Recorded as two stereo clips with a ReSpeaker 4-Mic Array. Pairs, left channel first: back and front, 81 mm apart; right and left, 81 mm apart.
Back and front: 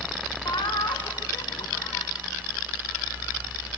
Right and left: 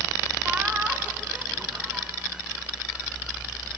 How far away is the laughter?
About 1.6 m.